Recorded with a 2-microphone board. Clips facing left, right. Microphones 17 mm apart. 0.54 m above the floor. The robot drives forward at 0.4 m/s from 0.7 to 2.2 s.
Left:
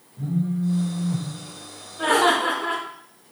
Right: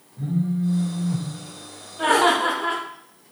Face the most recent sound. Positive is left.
turn(degrees=-30)  # may be behind; listen again after turning